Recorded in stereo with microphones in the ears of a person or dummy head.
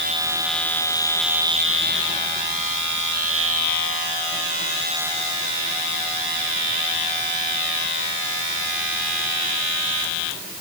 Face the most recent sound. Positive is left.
No sound to turn to.